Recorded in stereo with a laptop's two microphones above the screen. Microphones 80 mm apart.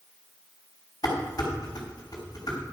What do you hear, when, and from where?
1.0 s dishes clattering: 50° left (ahead or behind), 5 m